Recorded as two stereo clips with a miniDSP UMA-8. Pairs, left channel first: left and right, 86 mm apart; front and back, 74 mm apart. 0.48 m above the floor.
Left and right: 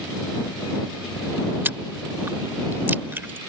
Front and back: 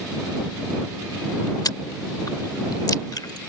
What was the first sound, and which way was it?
Chewing, 25° right.